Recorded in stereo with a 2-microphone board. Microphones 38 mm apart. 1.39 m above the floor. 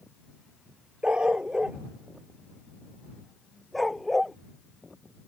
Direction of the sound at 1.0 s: 25° right (ahead or behind).